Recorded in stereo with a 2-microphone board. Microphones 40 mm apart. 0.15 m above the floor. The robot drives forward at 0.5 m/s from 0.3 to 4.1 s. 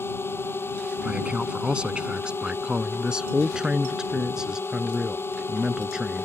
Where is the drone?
75° left (ahead or behind).